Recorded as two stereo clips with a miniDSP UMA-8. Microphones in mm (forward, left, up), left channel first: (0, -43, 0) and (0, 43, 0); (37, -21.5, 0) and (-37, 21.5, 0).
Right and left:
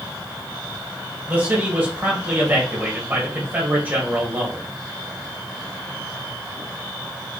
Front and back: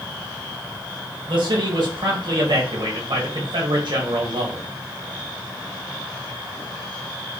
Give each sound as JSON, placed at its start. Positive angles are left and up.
{"t": 1.3, "sound": "a man speaking", "azimuth_deg": 155, "distance_m": 1.6}